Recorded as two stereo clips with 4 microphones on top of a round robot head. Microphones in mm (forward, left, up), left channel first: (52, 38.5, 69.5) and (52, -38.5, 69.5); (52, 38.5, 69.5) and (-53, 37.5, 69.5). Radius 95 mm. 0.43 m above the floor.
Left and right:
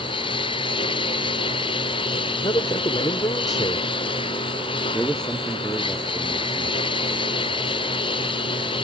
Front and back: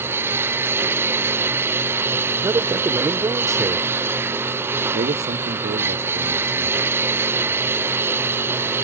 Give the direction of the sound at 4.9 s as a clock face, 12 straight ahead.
6 o'clock.